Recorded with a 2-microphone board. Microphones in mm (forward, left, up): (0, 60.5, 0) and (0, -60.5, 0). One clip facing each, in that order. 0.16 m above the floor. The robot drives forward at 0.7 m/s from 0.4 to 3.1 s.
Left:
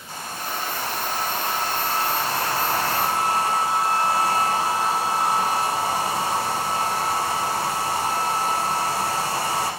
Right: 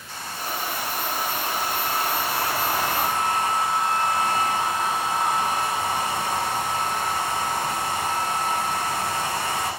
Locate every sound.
0.1 s a hair dryer: 45° left (ahead or behind), 7 m; by 9.7 s 35° left (ahead or behind), 8 m